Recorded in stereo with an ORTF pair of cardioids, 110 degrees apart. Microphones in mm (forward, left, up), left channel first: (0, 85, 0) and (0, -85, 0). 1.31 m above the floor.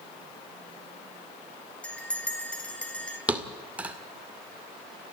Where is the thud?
10° right, 2 m.